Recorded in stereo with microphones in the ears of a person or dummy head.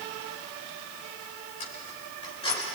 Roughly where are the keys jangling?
Left.